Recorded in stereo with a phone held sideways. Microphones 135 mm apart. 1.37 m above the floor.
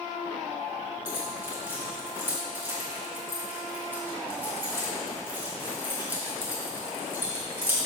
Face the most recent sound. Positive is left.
turn(degrees=-15)  # may be behind; listen again after turning